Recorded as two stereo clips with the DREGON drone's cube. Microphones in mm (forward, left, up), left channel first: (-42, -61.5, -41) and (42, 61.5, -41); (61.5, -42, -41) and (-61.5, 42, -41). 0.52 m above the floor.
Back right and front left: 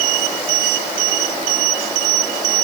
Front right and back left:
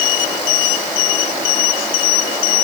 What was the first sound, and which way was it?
Only background noise.